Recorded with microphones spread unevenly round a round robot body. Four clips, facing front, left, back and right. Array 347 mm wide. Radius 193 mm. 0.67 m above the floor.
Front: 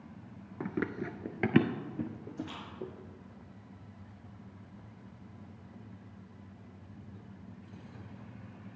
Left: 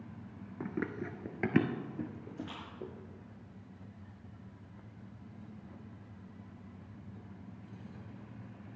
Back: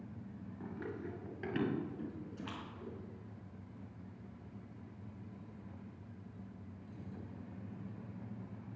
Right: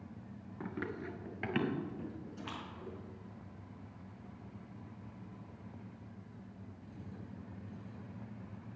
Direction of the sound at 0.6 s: 35° left.